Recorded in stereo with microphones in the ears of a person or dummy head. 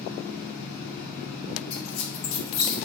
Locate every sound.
0.0 s a fan: 35° left (ahead or behind), 1.7 m
1.7 s a squeak: 85° left, 0.8 m